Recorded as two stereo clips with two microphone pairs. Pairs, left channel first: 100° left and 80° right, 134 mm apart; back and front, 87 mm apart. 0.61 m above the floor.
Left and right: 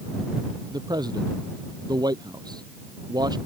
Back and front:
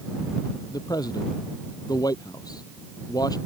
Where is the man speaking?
135° right.